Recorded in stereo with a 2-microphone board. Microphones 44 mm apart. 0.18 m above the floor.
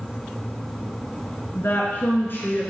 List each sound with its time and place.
1.5 s a woman speaking: 55° left (ahead or behind), 2.5 m; by 2.7 s 50° left (ahead or behind), 2.5 m